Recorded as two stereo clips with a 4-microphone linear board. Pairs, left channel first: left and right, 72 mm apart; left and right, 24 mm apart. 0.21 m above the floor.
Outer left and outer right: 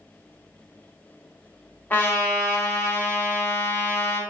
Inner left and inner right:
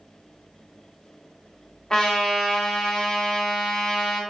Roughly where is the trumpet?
Left.